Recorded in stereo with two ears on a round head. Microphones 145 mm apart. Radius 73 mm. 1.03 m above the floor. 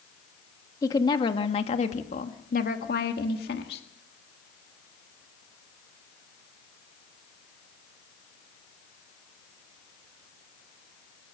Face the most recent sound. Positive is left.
turn(degrees=65)  # may be behind; listen again after turning